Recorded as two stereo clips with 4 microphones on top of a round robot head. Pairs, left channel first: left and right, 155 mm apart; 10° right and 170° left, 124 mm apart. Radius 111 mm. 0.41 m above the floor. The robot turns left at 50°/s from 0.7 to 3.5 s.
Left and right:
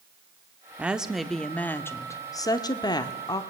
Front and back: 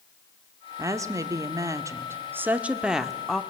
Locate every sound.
0.8 s a woman speaking: 160° right, 1.0 m; by 3.4 s 70° left, 1.0 m